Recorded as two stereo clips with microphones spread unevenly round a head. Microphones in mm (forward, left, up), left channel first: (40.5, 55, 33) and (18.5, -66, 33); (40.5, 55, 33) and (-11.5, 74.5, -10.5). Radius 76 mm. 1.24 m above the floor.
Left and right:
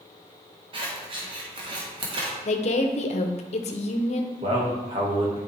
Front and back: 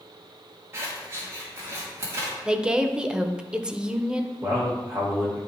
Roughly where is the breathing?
No breathing in this recording.